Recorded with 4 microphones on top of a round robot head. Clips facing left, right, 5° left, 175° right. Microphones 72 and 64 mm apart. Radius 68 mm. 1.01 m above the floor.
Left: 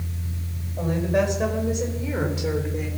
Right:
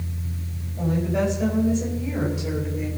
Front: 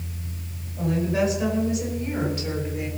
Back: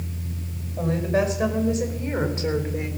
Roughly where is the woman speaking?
Behind left.